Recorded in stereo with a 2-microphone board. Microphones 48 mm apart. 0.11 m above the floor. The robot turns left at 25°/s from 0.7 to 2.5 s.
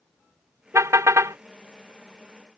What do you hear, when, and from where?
0.7 s a car horn: 80° right; by 1.4 s 75° right (ahead or behind)